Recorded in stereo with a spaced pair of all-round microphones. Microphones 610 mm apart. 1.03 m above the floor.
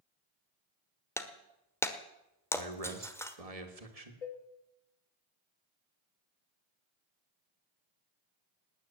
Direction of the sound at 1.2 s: 5° left (ahead or behind).